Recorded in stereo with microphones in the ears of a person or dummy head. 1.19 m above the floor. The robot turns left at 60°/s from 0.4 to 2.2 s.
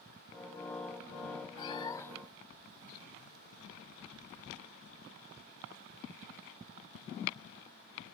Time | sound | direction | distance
1.6 | a cat meowing | 45° left | 0.5 m